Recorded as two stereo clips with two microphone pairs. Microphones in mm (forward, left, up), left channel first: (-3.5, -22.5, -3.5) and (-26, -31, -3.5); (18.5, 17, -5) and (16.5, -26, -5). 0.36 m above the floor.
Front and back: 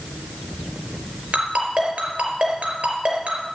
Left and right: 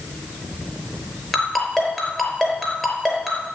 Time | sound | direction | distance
1.3 | a ringtone | 175° left | 5 m